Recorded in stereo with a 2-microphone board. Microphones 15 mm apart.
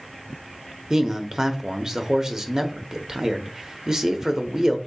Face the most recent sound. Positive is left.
turn(degrees=-35)  # may be behind; listen again after turning